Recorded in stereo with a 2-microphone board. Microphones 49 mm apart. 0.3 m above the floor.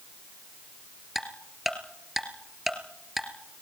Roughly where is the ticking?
Centre.